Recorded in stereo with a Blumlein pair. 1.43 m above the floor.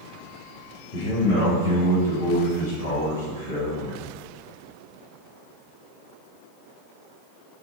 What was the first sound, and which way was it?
A man speaking, 70° left.